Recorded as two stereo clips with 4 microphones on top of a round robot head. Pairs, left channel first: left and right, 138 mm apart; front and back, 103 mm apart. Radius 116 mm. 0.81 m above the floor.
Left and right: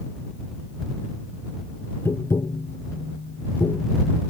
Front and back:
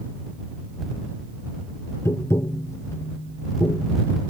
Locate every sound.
2.0 s tapping: 35° left